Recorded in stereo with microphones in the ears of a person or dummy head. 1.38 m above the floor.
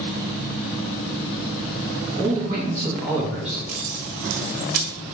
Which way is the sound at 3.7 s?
55° right (ahead or behind).